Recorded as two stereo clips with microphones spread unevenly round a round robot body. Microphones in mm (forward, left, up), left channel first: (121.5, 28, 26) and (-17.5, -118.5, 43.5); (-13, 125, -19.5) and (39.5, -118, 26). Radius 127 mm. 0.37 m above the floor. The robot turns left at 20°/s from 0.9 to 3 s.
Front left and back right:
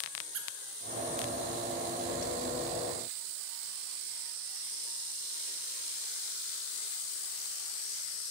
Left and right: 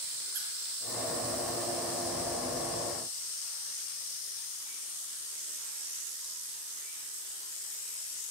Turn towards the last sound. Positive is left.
turn(degrees=-175)